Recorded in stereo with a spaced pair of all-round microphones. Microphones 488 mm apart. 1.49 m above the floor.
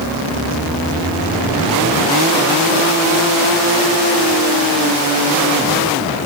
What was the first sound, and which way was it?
Only background noise.